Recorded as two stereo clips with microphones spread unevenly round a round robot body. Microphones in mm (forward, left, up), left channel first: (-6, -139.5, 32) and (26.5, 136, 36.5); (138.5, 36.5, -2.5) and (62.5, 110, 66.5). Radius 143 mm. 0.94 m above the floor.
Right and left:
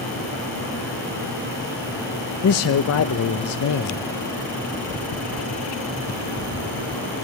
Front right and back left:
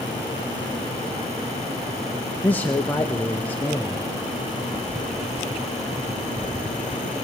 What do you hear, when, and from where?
2.4 s a man speaking: 85° right, 0.8 m